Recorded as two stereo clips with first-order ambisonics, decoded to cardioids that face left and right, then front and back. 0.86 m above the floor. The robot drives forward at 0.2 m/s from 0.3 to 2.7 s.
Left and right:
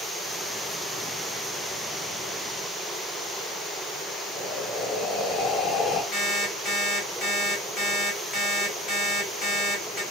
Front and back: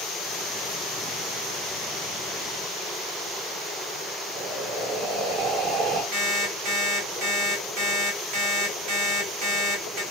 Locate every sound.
4.3 s breathing: 155° left, 0.6 m
6.1 s an alarm clock: straight behind, 1.3 m